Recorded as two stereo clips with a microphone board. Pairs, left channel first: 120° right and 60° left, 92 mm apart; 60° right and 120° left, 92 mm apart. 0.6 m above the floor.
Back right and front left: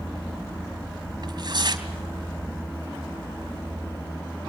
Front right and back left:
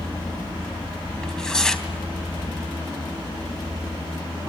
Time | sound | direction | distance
1.2 | tearing paper | 20° left | 3 m